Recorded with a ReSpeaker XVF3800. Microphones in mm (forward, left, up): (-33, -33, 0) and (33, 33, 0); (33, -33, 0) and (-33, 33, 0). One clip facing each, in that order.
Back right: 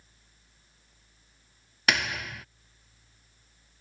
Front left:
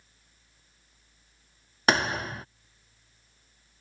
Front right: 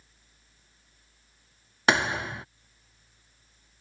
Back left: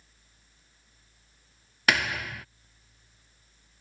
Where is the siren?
I don't hear a siren.